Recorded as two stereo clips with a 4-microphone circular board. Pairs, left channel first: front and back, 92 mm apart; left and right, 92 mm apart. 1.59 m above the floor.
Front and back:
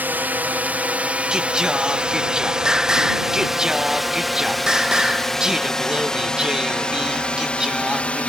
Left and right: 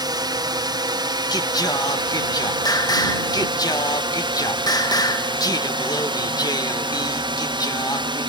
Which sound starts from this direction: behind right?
A drone, at 0.0 s.